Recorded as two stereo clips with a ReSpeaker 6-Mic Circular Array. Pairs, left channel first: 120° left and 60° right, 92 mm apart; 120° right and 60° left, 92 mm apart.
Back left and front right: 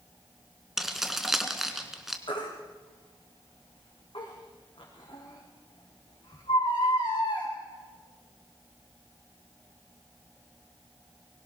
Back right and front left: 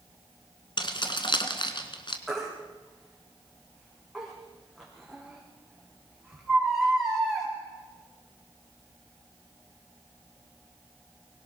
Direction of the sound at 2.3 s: 155° left.